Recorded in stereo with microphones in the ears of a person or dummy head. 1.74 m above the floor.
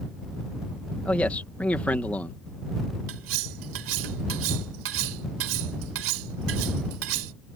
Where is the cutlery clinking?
80° right.